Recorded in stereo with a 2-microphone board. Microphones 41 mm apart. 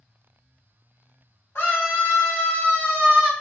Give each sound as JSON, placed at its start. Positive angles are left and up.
{"t": 1.6, "sound": "a scream", "side_deg": 65, "distance_m": 1.7}